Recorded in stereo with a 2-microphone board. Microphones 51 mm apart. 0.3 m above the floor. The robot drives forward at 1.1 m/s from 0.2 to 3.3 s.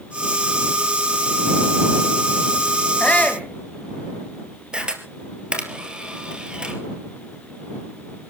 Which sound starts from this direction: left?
A shout, at 3.0 s.